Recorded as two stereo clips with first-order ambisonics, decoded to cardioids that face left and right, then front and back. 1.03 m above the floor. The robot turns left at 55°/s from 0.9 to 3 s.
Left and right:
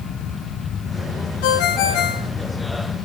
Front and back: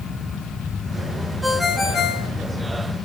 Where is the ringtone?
100° left, 1.3 m; by 2.3 s 50° left, 1.3 m.